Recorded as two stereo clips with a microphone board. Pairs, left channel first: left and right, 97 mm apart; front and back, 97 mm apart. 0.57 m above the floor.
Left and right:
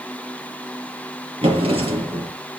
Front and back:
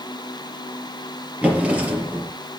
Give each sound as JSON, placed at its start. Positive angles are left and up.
{"t": 1.4, "sound": "a drawer", "azimuth_deg": -105, "distance_m": 4.0}